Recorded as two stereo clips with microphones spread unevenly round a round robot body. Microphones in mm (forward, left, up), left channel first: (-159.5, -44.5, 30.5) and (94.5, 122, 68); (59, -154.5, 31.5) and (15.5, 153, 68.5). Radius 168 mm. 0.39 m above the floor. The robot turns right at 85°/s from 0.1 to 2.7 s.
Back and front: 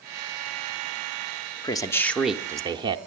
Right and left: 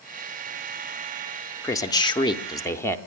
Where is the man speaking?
130° right, 0.8 m; by 3.0 s 40° right, 0.8 m.